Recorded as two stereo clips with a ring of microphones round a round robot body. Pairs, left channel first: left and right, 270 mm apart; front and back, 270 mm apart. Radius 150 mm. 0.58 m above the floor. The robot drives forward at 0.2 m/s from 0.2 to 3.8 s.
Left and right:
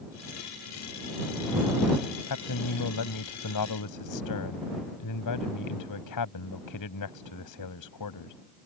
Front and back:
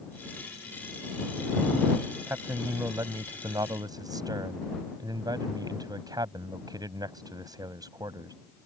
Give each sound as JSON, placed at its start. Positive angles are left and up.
{"t": 2.3, "sound": "a man speaking", "azimuth_deg": 100}